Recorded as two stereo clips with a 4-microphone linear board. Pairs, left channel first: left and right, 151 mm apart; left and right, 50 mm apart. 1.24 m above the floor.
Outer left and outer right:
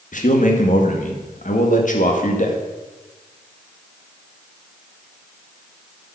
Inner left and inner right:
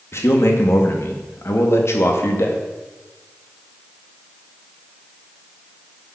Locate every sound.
0.1 s a man speaking: 60° left (ahead or behind), 1.8 m